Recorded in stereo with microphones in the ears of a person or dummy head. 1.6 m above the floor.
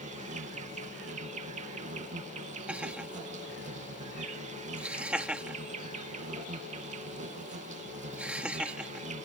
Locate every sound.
0.0 s an insect: 40° right (ahead or behind)
2.7 s laughter: 10° right (ahead or behind)